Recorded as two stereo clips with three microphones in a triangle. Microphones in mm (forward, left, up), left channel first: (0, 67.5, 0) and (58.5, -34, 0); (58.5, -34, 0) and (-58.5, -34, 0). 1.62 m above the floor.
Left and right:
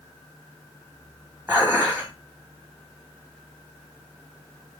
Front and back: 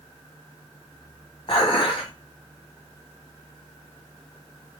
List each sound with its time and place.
1.5 s dishes clattering: 5° left, 1.0 m